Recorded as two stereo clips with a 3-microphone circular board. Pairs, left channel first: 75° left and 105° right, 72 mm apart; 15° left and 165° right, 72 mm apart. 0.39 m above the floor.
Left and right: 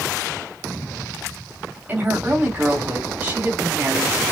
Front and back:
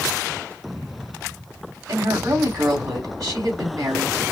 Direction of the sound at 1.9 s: 165° right.